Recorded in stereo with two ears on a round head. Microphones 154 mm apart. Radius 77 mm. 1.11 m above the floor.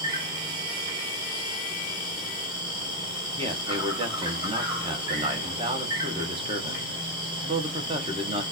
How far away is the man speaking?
About 1.2 m.